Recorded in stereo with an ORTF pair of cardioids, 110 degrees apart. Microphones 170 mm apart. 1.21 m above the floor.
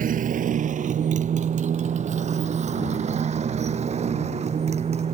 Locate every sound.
0.0 s a motorcycle: 50° right; by 5.1 s 40° right